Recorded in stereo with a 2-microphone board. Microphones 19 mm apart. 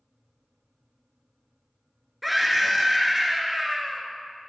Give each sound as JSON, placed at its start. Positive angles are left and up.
{"t": 2.2, "sound": "a scream", "side_deg": -5, "distance_m": 1.3}